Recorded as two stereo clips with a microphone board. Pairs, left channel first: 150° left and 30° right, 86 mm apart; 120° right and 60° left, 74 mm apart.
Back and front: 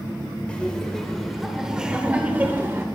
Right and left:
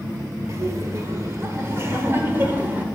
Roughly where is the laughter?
Left.